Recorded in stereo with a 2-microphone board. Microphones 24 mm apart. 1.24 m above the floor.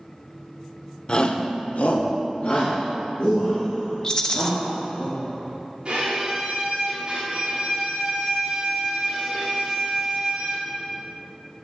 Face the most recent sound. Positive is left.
turn(degrees=-40)  # may be behind; listen again after turning